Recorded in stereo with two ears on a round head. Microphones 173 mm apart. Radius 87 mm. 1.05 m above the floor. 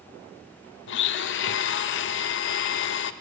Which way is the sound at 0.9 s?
65° left (ahead or behind).